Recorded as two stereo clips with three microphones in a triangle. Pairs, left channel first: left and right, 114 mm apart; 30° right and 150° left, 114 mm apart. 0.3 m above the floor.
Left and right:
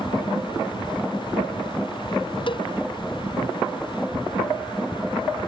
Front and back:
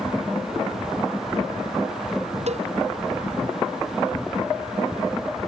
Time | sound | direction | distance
2.5 | a cowbell | 135° left | ?